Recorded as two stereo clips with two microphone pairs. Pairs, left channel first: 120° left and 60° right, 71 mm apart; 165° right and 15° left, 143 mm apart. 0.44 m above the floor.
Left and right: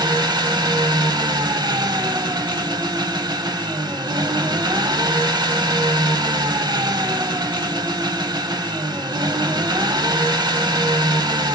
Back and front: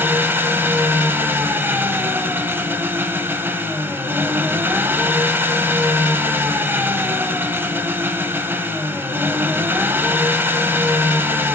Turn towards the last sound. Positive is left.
turn(degrees=-65)